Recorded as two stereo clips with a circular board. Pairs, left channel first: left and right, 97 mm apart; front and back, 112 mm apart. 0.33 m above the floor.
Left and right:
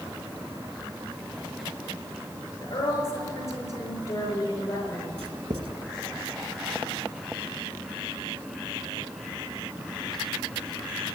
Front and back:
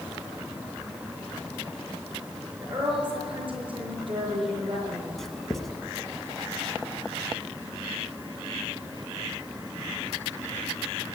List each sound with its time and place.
2.6 s a woman speaking: 145° left, 5.5 m
5.2 s writing: 90° right, 1.0 m